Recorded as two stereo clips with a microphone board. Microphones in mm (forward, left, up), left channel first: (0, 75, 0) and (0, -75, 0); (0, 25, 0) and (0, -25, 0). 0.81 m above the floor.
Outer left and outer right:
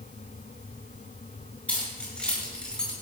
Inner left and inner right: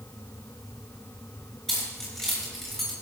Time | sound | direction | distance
1.7 | keys jangling | 5° left (ahead or behind) | 8.5 m